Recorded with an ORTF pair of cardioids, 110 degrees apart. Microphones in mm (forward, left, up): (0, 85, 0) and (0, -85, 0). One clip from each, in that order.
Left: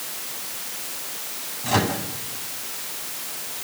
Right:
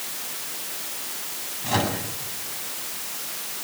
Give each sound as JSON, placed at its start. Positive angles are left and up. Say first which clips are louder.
{"t": 1.6, "sound": "a microwave", "louder": "left 2 dB", "azimuth_deg": 10, "distance_m": 8.5}